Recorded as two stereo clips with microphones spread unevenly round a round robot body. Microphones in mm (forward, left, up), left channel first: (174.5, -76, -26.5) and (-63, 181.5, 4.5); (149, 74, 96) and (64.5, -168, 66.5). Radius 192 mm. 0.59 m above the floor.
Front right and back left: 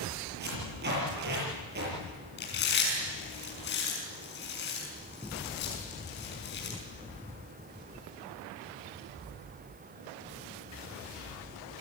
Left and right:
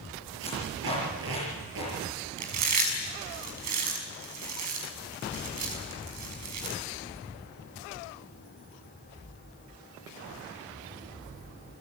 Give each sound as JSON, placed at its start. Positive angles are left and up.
{"t": 0.4, "sound": "tape being pulled", "azimuth_deg": -160, "distance_m": 7.0}
{"t": 2.4, "sound": "chewing", "azimuth_deg": -110, "distance_m": 5.5}